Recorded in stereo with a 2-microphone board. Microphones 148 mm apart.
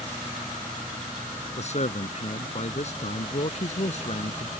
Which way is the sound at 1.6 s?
50° left (ahead or behind).